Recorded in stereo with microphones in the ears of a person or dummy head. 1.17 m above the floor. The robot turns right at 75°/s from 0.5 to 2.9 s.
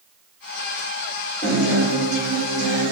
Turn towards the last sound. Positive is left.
turn(degrees=-80)